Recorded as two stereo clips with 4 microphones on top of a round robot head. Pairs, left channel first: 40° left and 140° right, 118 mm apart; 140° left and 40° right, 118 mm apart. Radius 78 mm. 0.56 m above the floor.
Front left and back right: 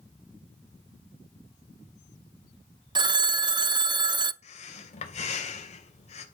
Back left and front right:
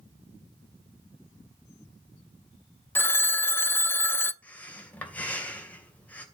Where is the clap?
No clap in this recording.